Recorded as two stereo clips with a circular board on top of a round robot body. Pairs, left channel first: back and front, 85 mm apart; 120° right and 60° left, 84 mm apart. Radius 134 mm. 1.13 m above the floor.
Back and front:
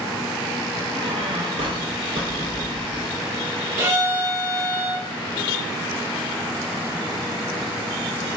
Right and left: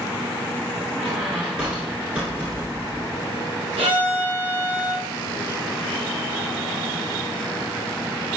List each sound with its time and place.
0.9 s a squeak: 20° right, 1.4 m
3.8 s a violin: 65° left, 2.5 m